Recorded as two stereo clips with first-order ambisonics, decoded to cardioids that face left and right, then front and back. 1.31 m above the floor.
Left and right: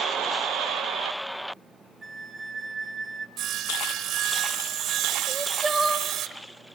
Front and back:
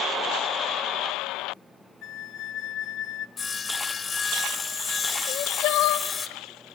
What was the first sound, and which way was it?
A flute, 20° right.